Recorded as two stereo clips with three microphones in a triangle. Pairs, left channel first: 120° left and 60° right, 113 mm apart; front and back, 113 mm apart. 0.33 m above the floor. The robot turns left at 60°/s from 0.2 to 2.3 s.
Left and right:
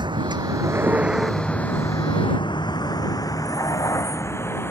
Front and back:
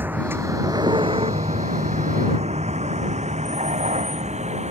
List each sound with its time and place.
0.0 s a vehicle: 105° right; by 4.7 s 170° right